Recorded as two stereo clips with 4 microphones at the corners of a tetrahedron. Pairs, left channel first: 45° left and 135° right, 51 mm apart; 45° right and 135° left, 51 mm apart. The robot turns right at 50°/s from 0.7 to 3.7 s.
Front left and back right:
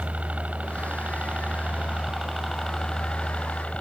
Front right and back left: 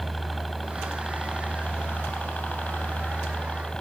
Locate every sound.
0.0 s a helicopter: 135° right; by 3.8 s 15° left